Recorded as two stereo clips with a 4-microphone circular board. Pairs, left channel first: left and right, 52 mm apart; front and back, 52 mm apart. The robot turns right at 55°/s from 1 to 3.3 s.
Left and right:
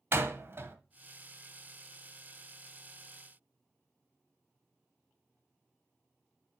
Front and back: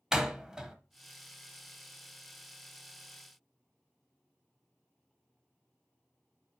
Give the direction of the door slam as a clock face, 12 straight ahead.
3 o'clock.